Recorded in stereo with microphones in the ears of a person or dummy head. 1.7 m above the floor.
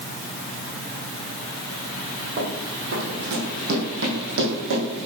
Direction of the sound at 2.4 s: 55° right (ahead or behind).